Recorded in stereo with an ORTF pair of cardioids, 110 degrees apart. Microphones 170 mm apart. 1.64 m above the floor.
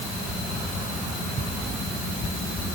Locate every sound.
Only background noise.